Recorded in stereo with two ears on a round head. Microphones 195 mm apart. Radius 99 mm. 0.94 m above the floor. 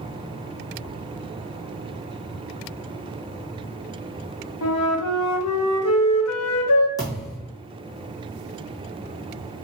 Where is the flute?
75° left (ahead or behind), 0.7 m.